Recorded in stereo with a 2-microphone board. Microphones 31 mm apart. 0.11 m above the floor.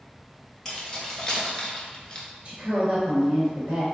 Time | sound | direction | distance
0.7 | keys jangling | 15° left (ahead or behind) | 1.3 m
2.5 | a woman speaking | 35° right (ahead or behind) | 1.5 m